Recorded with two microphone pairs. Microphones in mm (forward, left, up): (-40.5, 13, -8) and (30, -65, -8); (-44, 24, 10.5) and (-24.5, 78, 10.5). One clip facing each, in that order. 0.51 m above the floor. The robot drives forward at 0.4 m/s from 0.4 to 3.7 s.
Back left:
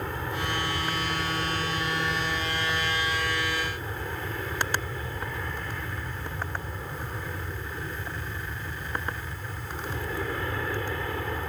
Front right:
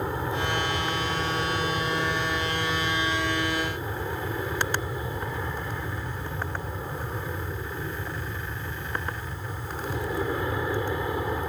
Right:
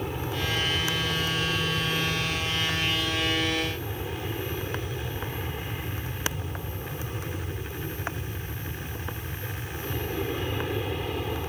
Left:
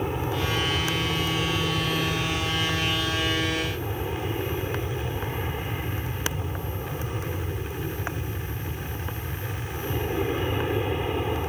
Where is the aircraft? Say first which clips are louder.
Front right 3 dB, left 3 dB; 15° left.